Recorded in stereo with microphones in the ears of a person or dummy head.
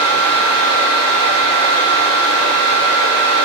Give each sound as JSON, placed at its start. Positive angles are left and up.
{"t": 0.0, "sound": "a fan", "side_deg": -65, "distance_m": 1.2}